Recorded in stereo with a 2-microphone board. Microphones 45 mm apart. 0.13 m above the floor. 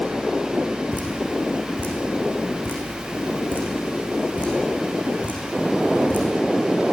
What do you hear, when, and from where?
0.9 s dripping: 40° left (ahead or behind), 7.5 m